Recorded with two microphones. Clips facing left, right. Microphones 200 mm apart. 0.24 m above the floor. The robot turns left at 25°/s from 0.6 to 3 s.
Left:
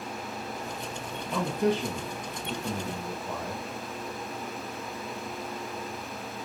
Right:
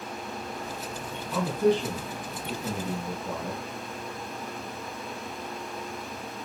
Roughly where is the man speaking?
Centre.